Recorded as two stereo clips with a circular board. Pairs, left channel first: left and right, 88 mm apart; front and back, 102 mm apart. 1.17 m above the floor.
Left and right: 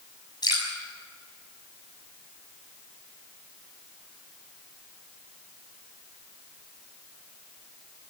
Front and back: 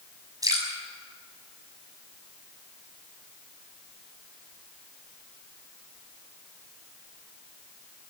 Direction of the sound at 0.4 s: 125° left.